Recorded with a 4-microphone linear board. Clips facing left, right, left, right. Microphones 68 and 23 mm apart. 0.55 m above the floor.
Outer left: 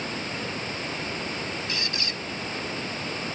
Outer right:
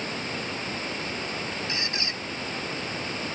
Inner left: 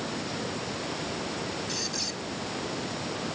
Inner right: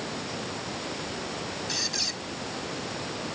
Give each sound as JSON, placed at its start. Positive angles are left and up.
{"t": 1.7, "sound": "a squeak", "side_deg": -25}